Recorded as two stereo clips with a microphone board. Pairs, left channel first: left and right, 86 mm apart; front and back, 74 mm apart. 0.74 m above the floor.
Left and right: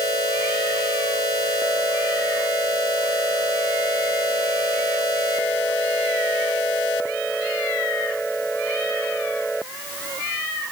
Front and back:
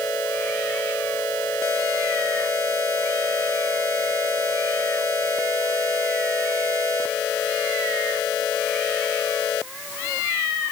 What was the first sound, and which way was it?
Only background noise.